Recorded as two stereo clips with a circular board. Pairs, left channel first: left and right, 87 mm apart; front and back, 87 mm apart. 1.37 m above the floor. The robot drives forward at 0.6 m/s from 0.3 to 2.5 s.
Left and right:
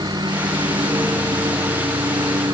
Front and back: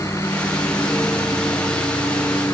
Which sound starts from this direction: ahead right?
A lawn mower, at 0.0 s.